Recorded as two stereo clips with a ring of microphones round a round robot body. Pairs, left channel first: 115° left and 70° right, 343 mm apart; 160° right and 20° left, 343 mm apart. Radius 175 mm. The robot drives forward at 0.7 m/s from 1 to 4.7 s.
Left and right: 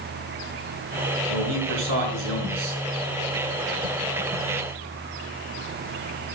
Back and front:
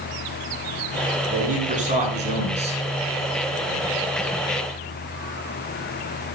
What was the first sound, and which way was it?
A man speaking, 45° right.